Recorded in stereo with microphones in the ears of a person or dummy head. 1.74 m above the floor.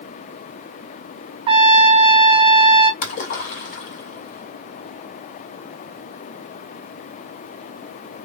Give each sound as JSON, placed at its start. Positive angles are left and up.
{"t": 1.5, "sound": "a trumpet", "side_deg": -25, "distance_m": 0.8}
{"t": 3.0, "sound": "a splash", "side_deg": 45, "distance_m": 2.0}